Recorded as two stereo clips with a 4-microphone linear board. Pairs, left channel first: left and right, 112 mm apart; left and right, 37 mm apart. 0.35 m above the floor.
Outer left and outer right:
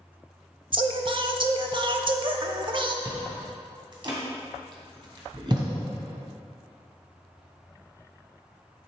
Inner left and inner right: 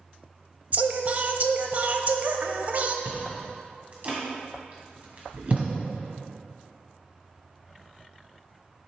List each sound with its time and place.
0.7 s singing: 45° right (ahead or behind), 0.5 m
3.0 s chewing: 45° right (ahead or behind), 1.8 m